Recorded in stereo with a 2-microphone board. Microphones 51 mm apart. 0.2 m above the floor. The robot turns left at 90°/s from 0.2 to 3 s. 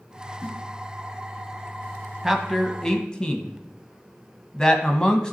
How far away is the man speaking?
About 1.1 m.